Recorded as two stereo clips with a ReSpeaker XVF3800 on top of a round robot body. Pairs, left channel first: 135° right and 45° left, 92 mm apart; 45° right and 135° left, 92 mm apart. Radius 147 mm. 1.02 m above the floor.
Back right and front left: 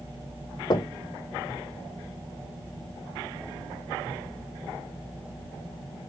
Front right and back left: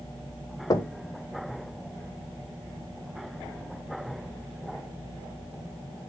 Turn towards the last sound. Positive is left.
turn(degrees=-95)